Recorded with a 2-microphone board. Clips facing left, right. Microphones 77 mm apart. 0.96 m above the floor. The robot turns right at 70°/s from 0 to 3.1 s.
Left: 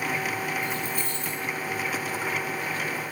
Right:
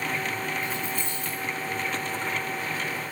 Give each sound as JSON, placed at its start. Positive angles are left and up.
{"t": 0.6, "sound": "keys jangling", "azimuth_deg": 155, "distance_m": 8.0}